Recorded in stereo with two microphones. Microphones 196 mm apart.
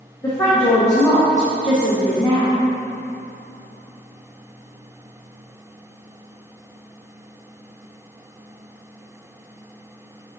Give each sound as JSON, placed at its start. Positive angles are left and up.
{"t": 0.2, "sound": "a woman speaking", "side_deg": 20, "distance_m": 1.4}